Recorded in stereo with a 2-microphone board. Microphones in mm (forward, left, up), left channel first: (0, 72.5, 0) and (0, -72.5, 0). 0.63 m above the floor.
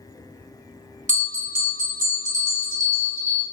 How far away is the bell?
About 1.2 m.